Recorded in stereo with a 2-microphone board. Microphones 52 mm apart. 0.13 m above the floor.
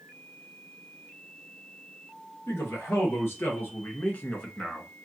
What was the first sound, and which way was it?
A man speaking, 65° left (ahead or behind).